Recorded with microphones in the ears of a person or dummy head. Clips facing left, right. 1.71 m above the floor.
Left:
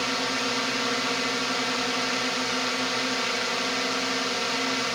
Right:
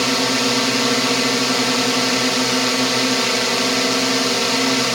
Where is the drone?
75° right (ahead or behind).